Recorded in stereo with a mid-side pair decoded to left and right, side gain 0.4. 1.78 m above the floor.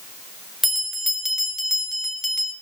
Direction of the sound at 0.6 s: 10° left.